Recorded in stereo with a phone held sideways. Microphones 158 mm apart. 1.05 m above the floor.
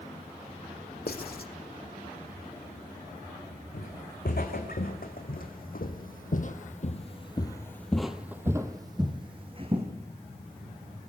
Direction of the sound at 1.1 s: 75° left (ahead or behind).